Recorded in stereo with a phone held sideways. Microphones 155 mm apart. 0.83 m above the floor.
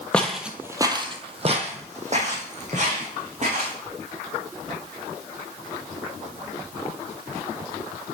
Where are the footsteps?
10° left (ahead or behind), 0.9 m; by 3.8 s 50° right (ahead or behind), 3 m.